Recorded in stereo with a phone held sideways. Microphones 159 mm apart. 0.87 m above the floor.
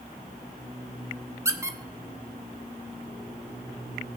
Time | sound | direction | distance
1.4 | a squeak | 20° right (ahead or behind) | 1.0 m